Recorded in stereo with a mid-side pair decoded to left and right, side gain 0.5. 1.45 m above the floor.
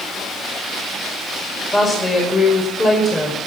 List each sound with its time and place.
1.7 s a woman speaking: 25° left, 5.5 m